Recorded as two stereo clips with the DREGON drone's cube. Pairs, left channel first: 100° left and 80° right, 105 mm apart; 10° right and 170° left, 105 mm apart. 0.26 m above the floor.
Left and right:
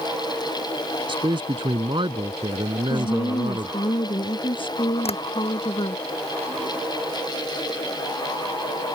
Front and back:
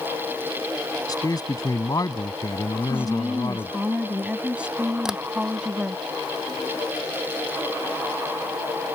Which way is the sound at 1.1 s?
55° right.